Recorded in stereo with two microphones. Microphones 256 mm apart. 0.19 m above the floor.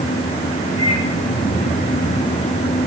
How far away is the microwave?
About 6.5 m.